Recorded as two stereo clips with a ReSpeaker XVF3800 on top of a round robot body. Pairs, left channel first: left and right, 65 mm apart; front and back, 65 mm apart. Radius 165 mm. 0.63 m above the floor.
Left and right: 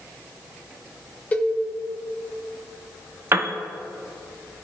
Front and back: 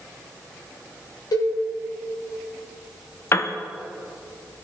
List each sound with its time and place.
1.3 s a cowbell: 20° left, 1.1 m
3.3 s a piano: 40° right, 1.0 m